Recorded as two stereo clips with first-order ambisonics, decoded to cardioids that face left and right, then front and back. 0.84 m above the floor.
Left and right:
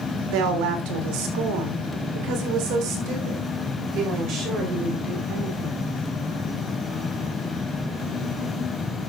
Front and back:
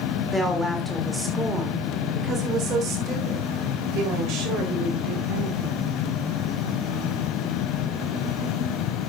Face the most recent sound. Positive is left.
turn(degrees=-155)